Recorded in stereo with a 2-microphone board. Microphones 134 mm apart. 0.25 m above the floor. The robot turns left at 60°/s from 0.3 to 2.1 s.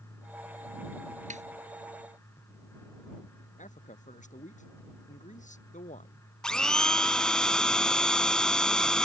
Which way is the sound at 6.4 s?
5° left (ahead or behind).